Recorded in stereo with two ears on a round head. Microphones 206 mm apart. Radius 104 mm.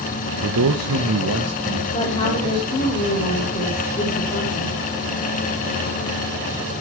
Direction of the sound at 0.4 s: 80° right.